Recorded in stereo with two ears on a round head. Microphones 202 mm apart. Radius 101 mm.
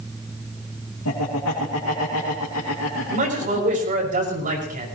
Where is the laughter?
70° left (ahead or behind), 3 m.